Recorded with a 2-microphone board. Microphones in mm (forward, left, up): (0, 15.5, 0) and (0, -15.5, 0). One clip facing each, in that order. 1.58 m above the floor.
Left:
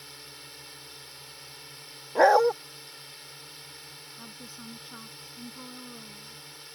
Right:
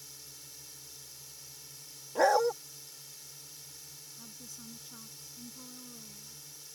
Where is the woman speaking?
40° left (ahead or behind).